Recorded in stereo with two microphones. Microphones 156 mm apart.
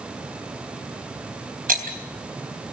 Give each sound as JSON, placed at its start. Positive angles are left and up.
{"t": 1.7, "sound": "breaking glass", "side_deg": -65, "distance_m": 3.5}